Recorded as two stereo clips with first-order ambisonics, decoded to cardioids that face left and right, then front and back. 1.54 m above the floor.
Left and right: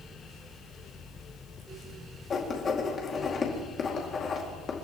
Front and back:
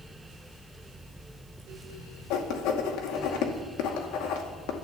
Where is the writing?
25° left, 2 m.